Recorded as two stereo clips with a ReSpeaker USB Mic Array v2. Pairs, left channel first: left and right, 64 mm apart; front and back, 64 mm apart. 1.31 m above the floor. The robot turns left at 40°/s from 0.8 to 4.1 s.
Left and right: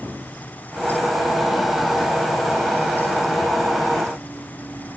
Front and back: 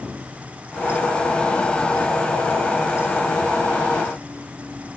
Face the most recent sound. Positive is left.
No sound to turn to.